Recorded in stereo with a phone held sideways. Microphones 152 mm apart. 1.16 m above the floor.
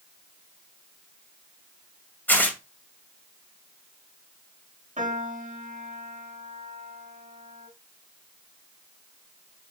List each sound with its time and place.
2.3 s tearing paper: 10° left (ahead or behind), 2 m
5.0 s a piano: 55° right (ahead or behind), 3 m